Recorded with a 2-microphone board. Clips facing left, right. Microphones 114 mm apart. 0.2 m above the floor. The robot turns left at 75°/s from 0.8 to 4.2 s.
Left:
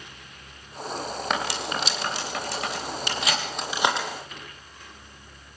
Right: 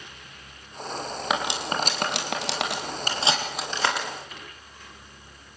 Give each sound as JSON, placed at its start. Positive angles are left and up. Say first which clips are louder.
{"t": 1.3, "sound": "cutlery clinking", "louder": "right 2 dB", "side_deg": -5, "distance_m": 5.0}